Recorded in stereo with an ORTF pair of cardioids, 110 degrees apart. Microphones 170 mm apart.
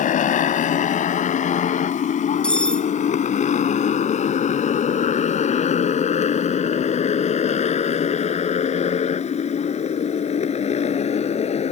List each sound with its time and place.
0.0 s a motorcycle: 50° left; by 11.7 s 40° left
2.4 s cutlery clinking: 5° left